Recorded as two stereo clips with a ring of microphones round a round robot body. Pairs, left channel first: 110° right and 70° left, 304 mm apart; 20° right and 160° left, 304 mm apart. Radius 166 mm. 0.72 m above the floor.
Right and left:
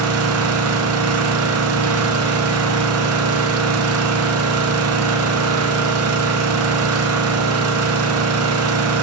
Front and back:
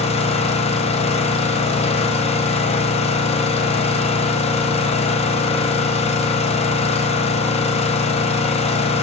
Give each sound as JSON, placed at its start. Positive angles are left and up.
{"t": 0.0, "sound": "an engine running", "azimuth_deg": 45, "distance_m": 0.7}